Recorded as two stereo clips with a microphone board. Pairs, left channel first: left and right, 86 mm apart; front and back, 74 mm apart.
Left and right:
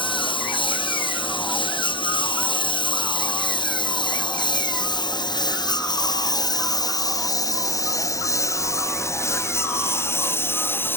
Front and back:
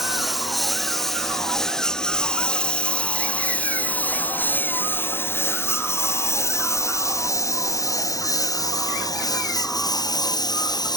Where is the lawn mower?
95° left; by 11.0 s 25° left.